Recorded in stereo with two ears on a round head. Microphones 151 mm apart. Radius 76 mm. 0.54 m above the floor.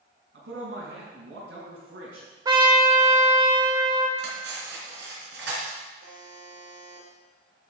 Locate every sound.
0.3 s a man speaking: 75° right (ahead or behind), 5.5 m
2.5 s a trumpet: 25° right (ahead or behind), 1.6 m
4.2 s cutlery clinking: 80° right, 4 m
6.0 s a buzzer: 65° right (ahead or behind), 3.5 m